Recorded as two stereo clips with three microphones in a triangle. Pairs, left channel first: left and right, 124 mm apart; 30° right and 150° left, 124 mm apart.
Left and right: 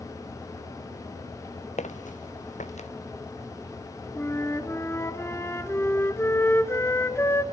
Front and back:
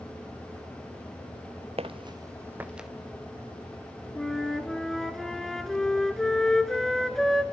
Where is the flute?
55° left, 1.1 m.